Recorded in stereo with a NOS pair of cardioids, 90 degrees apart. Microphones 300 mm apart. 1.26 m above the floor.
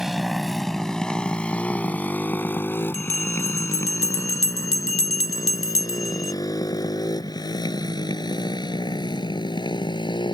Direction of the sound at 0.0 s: Straight ahead.